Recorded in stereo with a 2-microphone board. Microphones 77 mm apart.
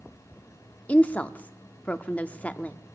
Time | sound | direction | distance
0.9 | a woman speaking | 20° left (ahead or behind) | 0.6 m